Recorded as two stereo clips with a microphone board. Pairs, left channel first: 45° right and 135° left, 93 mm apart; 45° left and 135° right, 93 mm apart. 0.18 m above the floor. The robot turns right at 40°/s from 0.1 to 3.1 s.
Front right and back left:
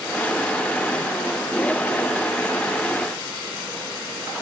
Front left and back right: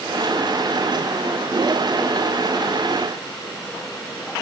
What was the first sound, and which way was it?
Only background noise.